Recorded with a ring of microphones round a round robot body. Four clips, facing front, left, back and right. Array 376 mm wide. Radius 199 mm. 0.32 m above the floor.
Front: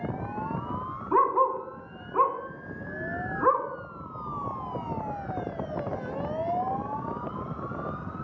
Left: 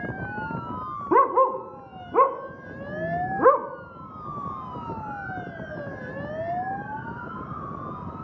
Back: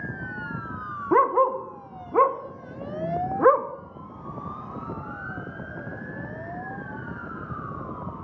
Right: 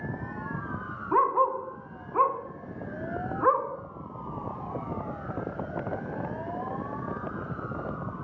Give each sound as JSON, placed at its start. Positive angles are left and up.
{"t": 1.1, "sound": "a dog barking", "azimuth_deg": 140, "distance_m": 0.7}